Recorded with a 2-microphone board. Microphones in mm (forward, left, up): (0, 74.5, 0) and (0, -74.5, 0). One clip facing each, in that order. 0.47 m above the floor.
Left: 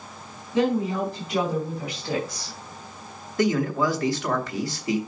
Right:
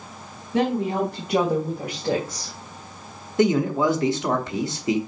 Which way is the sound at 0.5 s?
60° right (ahead or behind).